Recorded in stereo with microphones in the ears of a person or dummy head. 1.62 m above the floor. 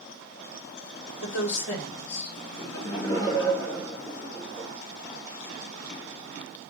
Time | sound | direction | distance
1.2 | a woman speaking | 35° left (ahead or behind) | 3.5 m
2.6 | laughter | 25° left (ahead or behind) | 3 m